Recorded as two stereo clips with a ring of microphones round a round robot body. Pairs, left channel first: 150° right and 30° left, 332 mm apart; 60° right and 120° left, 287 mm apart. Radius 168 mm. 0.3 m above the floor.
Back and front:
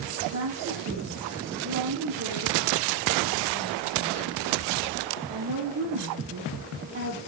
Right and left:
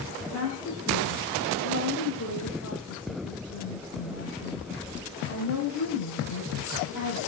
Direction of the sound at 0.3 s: 30° right.